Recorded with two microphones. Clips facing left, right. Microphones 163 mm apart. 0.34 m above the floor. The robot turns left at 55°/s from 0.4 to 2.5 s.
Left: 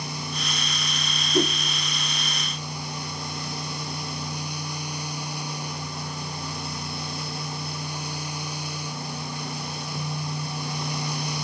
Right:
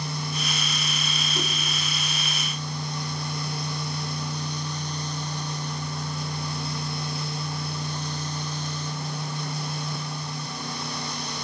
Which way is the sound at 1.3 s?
50° left (ahead or behind).